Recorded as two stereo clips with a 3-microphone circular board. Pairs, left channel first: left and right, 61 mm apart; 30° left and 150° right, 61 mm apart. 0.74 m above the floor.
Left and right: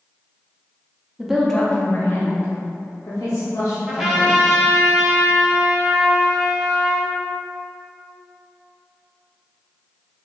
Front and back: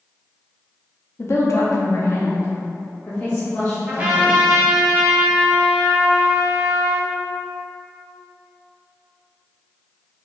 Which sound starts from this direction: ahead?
A woman speaking, at 1.2 s.